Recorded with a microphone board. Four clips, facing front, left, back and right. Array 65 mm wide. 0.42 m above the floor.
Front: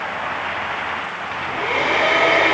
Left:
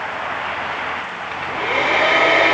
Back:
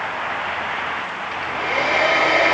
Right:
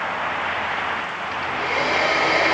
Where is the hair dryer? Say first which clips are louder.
Left 3 dB, front 1 dB; 60° left, 1.3 m.